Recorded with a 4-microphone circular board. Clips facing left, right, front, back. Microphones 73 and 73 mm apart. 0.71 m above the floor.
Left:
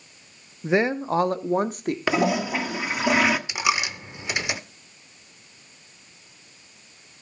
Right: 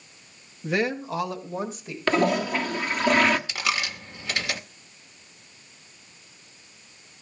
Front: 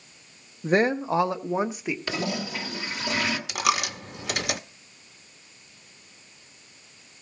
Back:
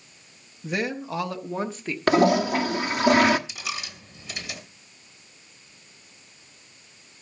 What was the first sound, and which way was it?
A woman speaking, 25° left.